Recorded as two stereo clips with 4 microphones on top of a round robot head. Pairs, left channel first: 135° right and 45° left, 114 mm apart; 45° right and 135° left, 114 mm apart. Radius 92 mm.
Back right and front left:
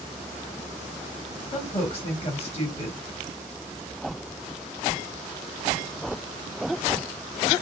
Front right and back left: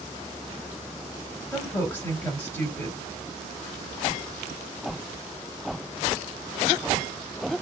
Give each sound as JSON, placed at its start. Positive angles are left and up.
{"t": 1.5, "sound": "a woman speaking", "azimuth_deg": -115, "distance_m": 1.9}